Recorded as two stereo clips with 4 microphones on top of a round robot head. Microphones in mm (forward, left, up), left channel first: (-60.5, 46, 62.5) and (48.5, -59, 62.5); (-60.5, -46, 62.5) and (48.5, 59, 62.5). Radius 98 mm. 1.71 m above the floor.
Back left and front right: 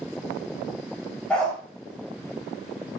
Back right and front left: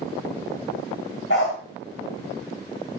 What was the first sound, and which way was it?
A dog barking, 140° right.